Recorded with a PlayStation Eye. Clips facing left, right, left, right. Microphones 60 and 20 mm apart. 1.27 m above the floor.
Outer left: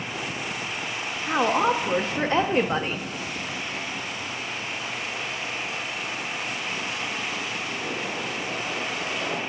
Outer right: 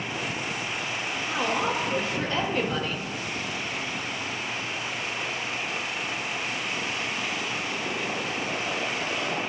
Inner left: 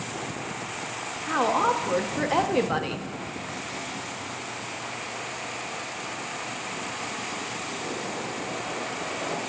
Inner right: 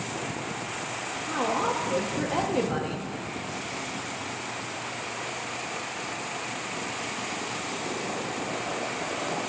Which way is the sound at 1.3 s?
35° left (ahead or behind).